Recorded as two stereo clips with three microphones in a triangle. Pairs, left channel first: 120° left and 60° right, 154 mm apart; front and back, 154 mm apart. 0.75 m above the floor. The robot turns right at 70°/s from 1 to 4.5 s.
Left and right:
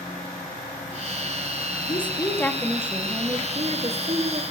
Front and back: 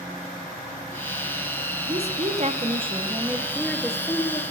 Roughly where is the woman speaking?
Behind left.